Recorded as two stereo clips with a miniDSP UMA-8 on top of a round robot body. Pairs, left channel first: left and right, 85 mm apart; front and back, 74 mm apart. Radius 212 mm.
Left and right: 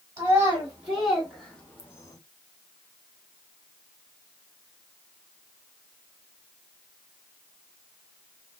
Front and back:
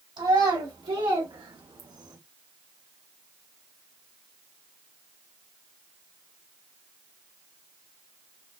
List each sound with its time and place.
0.2 s a child speaking: 160° right, 1.9 m; by 2.2 s 140° left, 1.0 m